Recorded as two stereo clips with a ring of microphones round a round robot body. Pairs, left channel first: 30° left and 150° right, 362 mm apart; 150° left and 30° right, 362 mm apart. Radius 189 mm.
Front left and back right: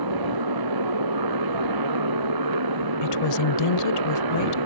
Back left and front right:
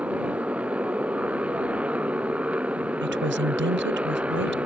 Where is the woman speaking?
20° left.